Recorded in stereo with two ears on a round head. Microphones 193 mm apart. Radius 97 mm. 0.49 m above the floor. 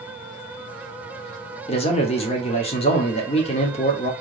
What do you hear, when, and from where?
1.7 s a man speaking: 30° left (ahead or behind), 0.9 m